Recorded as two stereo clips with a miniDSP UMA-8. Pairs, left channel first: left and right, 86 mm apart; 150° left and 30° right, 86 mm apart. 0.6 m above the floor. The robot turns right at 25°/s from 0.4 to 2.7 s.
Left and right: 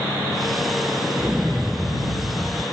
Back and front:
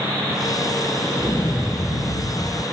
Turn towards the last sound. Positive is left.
turn(degrees=-135)